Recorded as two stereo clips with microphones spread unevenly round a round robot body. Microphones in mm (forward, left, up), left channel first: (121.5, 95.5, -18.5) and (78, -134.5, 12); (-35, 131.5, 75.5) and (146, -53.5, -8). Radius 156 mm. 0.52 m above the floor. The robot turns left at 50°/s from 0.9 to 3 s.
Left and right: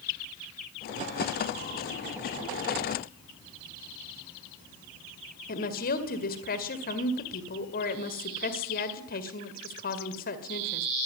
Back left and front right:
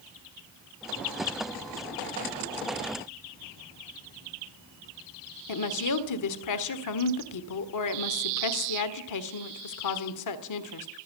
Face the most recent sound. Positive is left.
turn(degrees=130)